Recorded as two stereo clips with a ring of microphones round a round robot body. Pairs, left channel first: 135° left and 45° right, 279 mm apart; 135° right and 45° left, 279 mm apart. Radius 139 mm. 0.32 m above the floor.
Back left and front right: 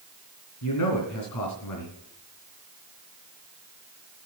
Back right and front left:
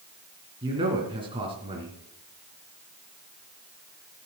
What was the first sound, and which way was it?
A man speaking, 115° left.